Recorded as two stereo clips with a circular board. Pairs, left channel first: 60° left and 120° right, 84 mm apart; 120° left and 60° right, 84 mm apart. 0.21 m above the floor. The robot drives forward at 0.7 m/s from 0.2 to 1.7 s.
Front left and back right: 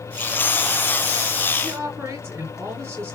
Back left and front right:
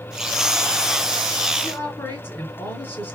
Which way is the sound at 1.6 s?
Straight behind.